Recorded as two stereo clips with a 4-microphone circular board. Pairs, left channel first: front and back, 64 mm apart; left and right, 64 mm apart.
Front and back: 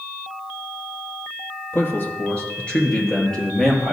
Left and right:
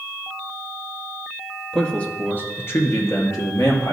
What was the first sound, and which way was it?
A man speaking, 15° left.